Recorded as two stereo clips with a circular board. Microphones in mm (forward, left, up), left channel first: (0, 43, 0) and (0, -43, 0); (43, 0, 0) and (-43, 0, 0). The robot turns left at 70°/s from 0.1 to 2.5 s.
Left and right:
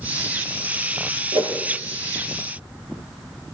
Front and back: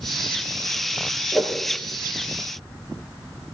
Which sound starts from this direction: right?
A whoosh, at 1.3 s.